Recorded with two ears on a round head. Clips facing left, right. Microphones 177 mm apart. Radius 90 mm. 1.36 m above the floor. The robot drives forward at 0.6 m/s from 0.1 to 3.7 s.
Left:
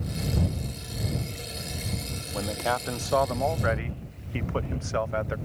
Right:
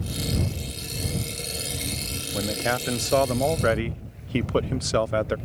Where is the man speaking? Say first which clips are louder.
Right 2 dB; 20° right (ahead or behind); by 5.4 s 40° right (ahead or behind).